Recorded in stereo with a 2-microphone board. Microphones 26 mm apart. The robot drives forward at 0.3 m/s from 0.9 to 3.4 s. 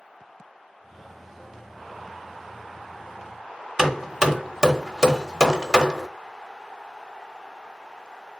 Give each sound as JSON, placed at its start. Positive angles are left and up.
{"t": 3.8, "sound": "hammering", "side_deg": -20, "distance_m": 0.9}